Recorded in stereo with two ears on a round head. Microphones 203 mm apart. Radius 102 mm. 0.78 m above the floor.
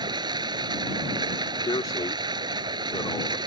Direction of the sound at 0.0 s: 20° right (ahead or behind).